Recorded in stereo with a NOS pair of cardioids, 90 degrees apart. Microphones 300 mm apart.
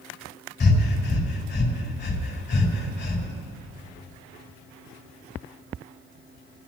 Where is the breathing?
35° left, 5 m.